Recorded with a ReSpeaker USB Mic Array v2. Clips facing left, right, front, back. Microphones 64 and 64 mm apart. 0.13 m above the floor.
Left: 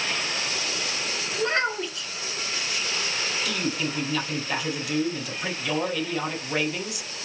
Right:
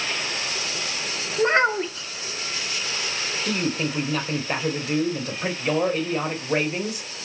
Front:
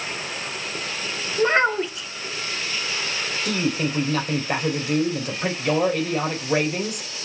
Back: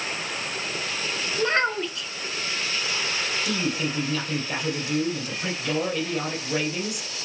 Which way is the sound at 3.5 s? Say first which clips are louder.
Right 6 dB, front 5 dB; 40° right.